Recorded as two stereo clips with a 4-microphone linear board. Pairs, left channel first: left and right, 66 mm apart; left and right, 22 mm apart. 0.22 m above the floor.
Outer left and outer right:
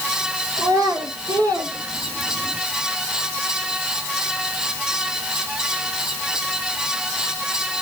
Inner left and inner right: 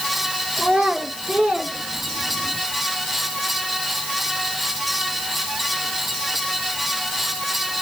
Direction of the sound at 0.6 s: 75° right (ahead or behind).